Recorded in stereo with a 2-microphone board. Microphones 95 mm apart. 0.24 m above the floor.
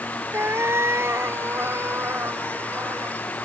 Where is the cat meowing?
25° right (ahead or behind).